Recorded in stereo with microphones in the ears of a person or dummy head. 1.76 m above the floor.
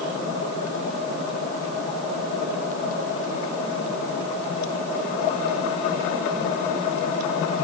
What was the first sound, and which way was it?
Only background noise.